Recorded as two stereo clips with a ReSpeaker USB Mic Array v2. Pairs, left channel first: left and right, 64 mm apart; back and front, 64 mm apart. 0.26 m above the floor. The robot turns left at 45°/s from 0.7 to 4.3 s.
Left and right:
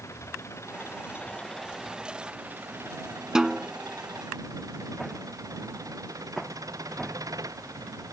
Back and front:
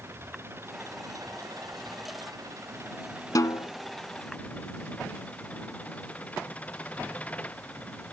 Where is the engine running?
50° left; by 8.1 s 110° right.